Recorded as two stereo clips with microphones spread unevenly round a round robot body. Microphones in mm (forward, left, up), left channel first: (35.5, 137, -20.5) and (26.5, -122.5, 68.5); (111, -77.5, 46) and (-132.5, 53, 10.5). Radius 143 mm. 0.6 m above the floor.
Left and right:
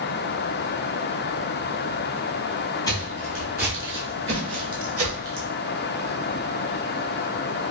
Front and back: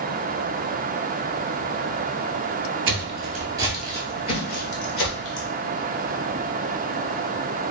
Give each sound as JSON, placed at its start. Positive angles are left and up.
{"t": 2.9, "sound": "footsteps", "azimuth_deg": 180, "distance_m": 0.7}